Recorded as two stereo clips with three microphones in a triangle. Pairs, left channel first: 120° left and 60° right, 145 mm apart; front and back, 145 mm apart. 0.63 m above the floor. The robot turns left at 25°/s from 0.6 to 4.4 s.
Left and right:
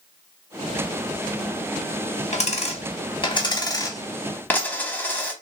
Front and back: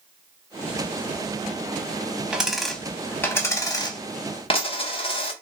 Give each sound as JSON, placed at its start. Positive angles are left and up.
{"t": 2.3, "sound": "a dropped coin", "azimuth_deg": 95, "distance_m": 0.7}